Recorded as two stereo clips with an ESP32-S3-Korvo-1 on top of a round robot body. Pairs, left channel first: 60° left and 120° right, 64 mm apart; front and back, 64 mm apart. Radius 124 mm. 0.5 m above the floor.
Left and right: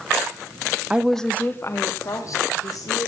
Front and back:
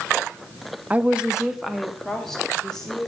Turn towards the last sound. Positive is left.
turn(degrees=80)